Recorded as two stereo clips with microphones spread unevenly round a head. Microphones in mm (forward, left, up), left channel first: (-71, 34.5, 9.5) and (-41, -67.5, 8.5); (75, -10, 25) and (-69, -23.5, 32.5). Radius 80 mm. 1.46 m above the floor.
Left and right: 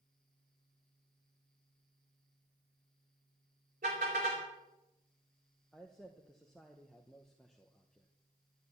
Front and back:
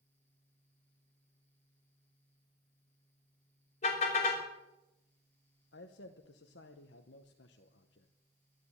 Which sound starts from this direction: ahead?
A man speaking, at 5.7 s.